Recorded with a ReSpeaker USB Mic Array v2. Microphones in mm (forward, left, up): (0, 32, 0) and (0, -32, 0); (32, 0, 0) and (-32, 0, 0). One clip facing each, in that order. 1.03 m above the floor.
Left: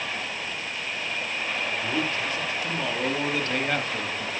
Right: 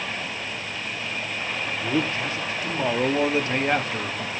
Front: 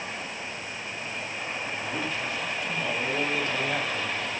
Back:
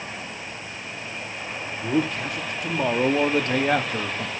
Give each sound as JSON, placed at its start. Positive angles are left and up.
{"t": 1.8, "sound": "a man speaking", "azimuth_deg": -150, "distance_m": 2.5}